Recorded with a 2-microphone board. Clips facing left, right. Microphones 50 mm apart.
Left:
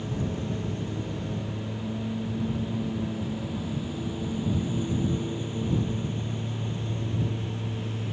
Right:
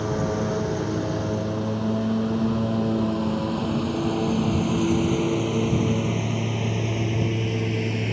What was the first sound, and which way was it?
A lawn mower, 75° right (ahead or behind).